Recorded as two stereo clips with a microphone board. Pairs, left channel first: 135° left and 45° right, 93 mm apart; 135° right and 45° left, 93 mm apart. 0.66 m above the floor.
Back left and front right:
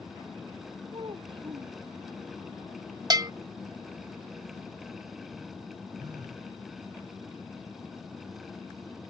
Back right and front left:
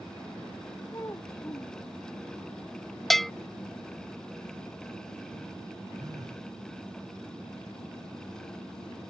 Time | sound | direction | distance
0.9 | a child speaking | 75° right | ?
3.1 | a bell | 50° right | ?
6.0 | a phone buzzing | straight ahead | ?